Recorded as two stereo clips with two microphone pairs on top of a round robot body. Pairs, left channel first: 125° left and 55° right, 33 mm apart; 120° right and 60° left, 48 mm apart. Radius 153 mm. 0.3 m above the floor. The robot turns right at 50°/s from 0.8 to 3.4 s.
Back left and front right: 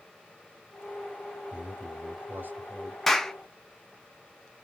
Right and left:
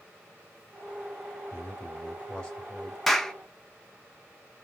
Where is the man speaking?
85° right, 1.9 m; by 3.0 s 15° right, 1.9 m.